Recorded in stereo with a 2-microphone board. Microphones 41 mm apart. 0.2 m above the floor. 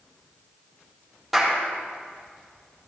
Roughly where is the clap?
Centre.